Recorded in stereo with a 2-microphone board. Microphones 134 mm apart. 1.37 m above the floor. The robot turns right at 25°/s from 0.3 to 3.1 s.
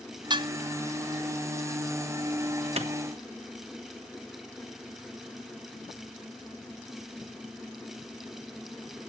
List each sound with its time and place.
0.3 s dishes clattering: 35° right (ahead or behind), 0.6 m; by 0.5 s 40° right (ahead or behind), 0.6 m
2.8 s a clap: 55° right (ahead or behind), 1.3 m